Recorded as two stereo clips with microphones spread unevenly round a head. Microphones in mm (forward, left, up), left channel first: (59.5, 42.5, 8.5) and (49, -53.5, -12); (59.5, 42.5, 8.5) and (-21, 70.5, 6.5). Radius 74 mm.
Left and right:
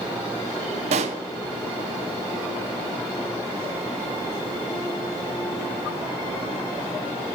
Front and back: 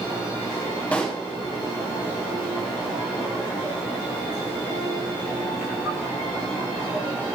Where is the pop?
100° right, 0.5 m.